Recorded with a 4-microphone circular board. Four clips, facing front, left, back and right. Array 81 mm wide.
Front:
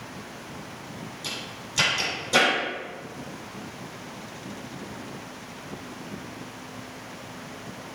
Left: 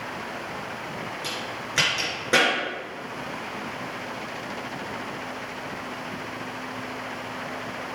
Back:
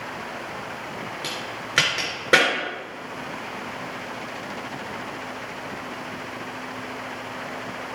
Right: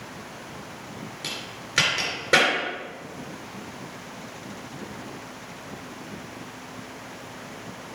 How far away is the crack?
About 4 m.